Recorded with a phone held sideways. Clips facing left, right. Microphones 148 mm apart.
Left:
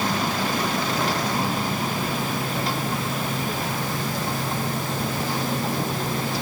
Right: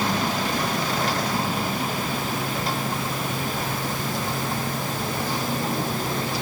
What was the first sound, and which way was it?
Only background noise.